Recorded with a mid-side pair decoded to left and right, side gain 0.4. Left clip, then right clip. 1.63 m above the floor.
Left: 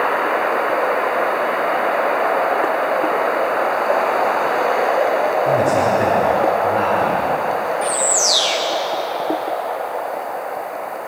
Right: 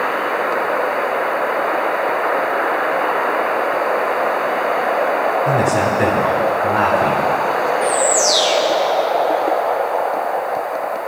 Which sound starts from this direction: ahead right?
A man speaking, at 5.5 s.